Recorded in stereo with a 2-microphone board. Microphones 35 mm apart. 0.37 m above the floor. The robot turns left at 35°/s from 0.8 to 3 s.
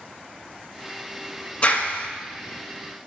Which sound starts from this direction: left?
A clap, at 1.6 s.